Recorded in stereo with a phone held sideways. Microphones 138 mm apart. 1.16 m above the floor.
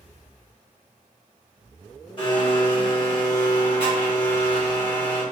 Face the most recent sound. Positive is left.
turn(degrees=35)  # may be behind; listen again after turning